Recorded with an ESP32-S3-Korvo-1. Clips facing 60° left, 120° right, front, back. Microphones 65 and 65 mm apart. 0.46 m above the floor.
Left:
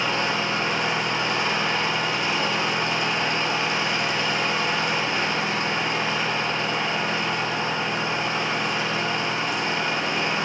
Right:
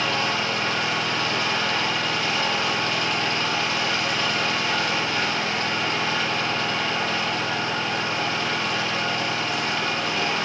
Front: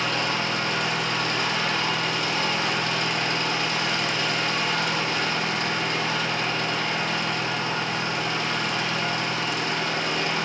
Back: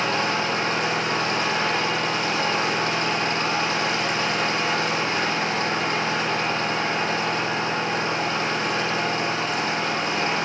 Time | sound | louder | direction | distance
0.0 | an engine running | even, back 3 dB | 130° left | 9 m